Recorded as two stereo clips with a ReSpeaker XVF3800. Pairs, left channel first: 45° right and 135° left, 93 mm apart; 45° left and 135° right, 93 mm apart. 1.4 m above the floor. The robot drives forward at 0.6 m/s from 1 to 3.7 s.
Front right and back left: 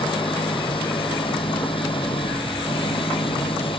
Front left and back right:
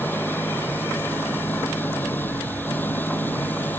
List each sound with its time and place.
0.0 s an engine running: 25° right